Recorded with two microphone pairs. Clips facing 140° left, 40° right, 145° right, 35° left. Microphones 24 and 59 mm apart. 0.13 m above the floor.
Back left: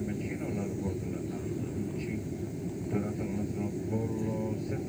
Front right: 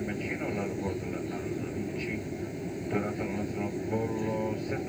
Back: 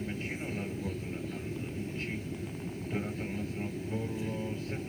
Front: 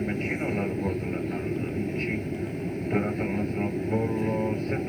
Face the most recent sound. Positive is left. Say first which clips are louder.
# front right 2 dB, front 9 dB
turn(degrees=10)